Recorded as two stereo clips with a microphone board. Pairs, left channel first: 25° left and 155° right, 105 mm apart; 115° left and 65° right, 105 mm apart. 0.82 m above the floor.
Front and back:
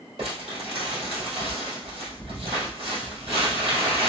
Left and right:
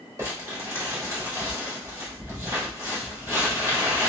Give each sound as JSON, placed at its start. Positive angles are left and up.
{"t": 0.2, "sound": "crumpling", "azimuth_deg": -130, "distance_m": 1.7}